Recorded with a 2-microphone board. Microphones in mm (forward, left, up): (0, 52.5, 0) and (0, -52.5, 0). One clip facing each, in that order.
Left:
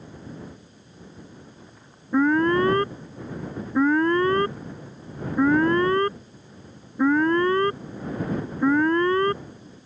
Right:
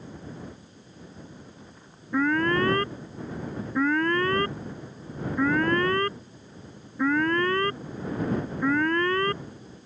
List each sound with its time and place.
2.1 s an alarm: 20° left (ahead or behind)